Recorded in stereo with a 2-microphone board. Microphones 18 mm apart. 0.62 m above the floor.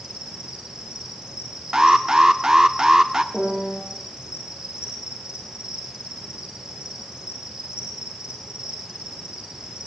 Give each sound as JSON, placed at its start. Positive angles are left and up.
{"t": 0.0, "sound": "an insect", "side_deg": -55, "distance_m": 6.5}
{"t": 1.7, "sound": "an alarm", "side_deg": -35, "distance_m": 1.0}
{"t": 3.3, "sound": "a piano", "side_deg": -60, "distance_m": 9.5}